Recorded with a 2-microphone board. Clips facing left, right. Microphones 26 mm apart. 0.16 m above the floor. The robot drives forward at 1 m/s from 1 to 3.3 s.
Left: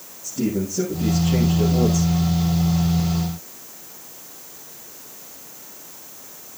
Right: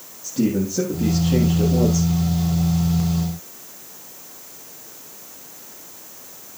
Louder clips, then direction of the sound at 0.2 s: Right 3 dB; 30° right (ahead or behind).